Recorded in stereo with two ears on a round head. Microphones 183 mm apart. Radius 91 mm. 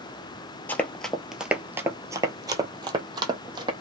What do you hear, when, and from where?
0.7 s running footsteps: 10° left (ahead or behind), 0.8 m; by 3.7 s 20° right (ahead or behind), 1.6 m